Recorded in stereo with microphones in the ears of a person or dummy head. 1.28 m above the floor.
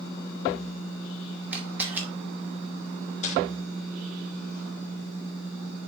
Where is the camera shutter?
15° right (ahead or behind), 2 m.